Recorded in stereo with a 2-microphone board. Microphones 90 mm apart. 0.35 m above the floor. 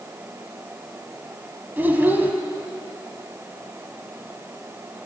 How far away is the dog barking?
No dog barking in this recording.